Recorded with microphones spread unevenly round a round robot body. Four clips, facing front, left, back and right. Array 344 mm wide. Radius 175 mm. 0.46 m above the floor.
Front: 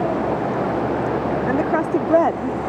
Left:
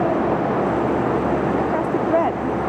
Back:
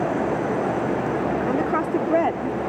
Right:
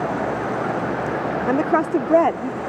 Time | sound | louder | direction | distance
1.5 | a woman speaking | right 1 dB, front 5 dB | 70° right | ?